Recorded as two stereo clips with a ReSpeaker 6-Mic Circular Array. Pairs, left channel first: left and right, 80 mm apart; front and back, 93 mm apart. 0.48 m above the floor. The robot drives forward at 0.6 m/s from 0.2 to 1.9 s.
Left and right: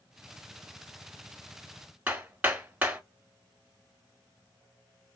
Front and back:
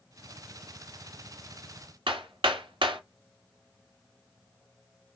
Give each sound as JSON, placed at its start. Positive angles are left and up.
{"t": 2.1, "sound": "hammering", "azimuth_deg": -160, "distance_m": 1.8}